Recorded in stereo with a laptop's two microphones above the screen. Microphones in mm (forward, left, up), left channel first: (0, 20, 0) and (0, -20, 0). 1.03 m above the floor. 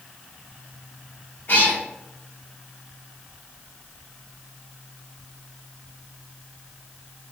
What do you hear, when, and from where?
1.5 s a cat meowing: 55° left (ahead or behind), 1.0 m